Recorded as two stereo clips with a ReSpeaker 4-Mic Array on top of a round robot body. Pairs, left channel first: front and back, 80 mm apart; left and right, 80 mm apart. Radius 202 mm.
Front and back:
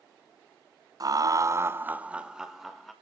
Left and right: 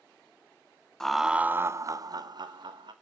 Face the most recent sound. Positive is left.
turn(degrees=-90)